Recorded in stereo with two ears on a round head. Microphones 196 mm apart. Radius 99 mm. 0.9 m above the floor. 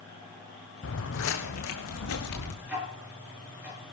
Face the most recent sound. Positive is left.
turn(degrees=-10)  # may be behind; listen again after turning